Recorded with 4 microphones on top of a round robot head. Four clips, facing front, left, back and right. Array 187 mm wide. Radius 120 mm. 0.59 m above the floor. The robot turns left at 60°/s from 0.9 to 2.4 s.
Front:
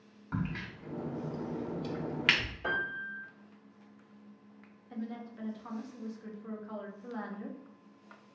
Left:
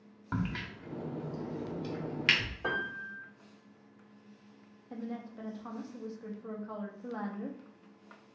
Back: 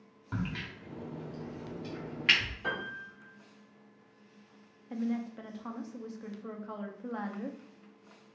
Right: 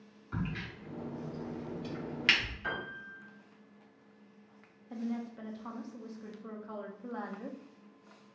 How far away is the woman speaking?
About 1.2 m.